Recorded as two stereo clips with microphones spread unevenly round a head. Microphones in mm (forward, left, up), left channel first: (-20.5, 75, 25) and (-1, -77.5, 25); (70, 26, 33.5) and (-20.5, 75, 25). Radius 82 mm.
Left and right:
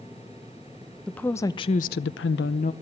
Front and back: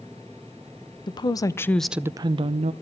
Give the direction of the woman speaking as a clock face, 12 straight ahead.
12 o'clock.